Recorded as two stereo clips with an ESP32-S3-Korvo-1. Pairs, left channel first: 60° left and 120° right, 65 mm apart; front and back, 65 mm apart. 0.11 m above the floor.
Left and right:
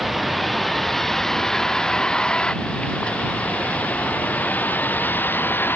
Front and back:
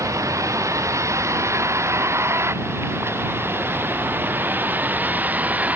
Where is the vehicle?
150° left; by 5.8 s 115° left.